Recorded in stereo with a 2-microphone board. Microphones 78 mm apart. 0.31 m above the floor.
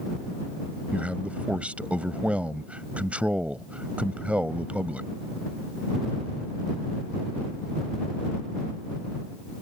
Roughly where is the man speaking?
Centre.